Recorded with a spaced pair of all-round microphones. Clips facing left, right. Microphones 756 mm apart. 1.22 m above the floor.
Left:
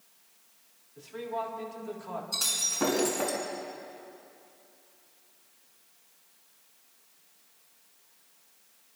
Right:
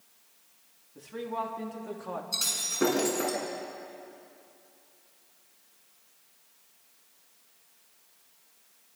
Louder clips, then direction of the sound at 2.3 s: Right 1 dB; 30° left (ahead or behind).